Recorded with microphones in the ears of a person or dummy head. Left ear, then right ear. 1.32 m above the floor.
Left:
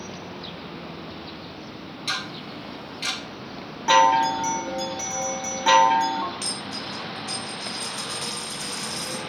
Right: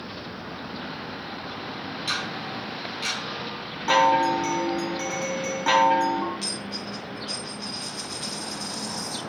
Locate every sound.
2.1 s ticking: 5° left (ahead or behind), 1.3 m
3.9 s a chime: 10° left (ahead or behind), 0.6 m
6.4 s a dropped coin: 15° left (ahead or behind), 1.9 m